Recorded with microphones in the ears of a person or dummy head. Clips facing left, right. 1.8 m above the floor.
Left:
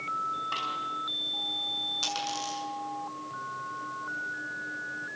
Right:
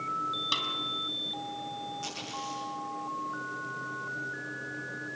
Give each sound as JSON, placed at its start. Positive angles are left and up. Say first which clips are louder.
{"t": 0.5, "sound": "a snare drum", "louder": "even", "side_deg": -50, "distance_m": 4.5}
{"t": 2.0, "sound": "a dropped coin", "louder": "left 4 dB", "side_deg": 75, "distance_m": 6.5}